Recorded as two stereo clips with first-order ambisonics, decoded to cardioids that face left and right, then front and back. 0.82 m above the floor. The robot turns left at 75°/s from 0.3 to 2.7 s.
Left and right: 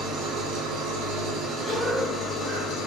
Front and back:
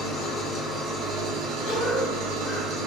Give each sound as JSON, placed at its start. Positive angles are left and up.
{"t": 0.0, "sound": "an engine running", "azimuth_deg": -55, "distance_m": 0.9}
{"t": 1.6, "sound": "a cough", "azimuth_deg": -20, "distance_m": 0.8}